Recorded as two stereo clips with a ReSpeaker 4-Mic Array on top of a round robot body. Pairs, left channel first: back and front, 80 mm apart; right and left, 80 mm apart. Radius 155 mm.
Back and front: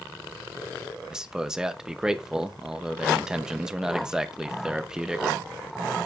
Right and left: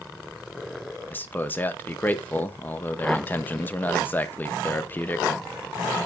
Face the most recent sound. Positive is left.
turn(degrees=-70)